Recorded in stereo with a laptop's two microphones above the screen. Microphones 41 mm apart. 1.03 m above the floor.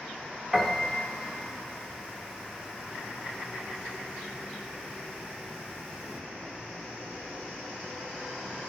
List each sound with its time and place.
0.5 s a piano: 10° right (ahead or behind), 1.8 m